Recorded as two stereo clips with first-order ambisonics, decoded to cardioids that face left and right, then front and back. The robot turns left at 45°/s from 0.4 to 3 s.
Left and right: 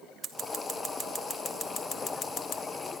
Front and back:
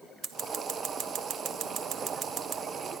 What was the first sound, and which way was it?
Scissors, 145° right.